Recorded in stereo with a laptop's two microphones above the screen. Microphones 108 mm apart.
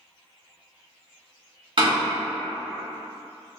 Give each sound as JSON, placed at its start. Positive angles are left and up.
{"t": 1.8, "sound": "a door slam", "side_deg": -50, "distance_m": 1.4}